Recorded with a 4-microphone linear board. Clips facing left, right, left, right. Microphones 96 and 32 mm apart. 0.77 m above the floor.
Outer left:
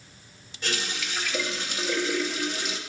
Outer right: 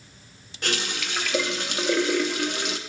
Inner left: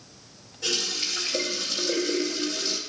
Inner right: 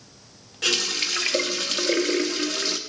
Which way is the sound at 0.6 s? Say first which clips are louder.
Outer right 3 dB, inner right 4 dB; 70° right (ahead or behind).